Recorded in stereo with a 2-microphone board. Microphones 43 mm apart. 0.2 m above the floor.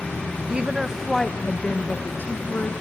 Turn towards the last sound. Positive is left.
turn(degrees=50)  # may be behind; listen again after turning